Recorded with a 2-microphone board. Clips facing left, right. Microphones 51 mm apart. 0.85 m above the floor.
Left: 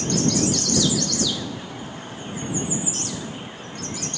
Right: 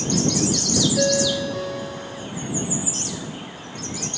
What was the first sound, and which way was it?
A ringtone, 75° right (ahead or behind).